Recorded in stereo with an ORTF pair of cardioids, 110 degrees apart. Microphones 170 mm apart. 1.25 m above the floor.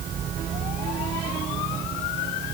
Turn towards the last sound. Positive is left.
No sound to turn to.